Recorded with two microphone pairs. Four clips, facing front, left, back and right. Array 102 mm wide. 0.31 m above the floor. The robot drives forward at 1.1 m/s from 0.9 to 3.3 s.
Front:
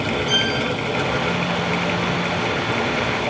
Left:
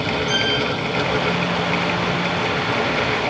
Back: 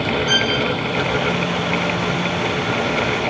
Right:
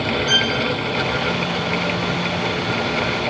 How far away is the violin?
About 5 m.